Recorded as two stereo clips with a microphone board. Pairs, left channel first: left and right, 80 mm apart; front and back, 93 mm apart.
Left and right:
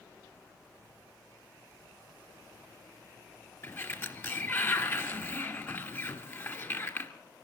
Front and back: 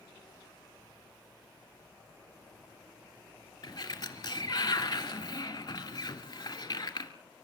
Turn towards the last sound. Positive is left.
turn(degrees=35)